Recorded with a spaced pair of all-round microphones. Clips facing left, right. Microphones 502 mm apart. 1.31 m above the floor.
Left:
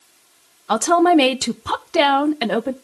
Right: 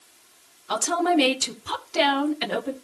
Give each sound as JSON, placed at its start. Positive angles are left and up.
{"t": 0.7, "sound": "a woman speaking", "side_deg": 80, "distance_m": 0.8}